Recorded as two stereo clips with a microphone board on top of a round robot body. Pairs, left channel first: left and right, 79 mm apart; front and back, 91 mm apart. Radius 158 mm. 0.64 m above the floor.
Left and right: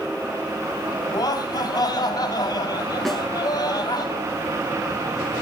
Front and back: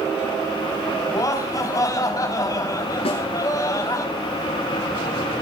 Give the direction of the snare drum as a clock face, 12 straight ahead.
12 o'clock.